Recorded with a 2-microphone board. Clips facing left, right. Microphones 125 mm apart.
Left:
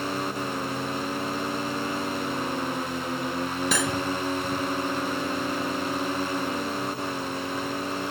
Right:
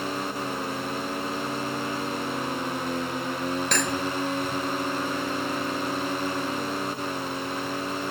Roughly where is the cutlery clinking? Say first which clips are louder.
Even; centre.